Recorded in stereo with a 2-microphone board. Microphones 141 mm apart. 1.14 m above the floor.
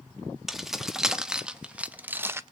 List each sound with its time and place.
0.5 s keys jangling: centre (ahead or behind), 1.5 m; by 2.4 s 20° right (ahead or behind), 0.6 m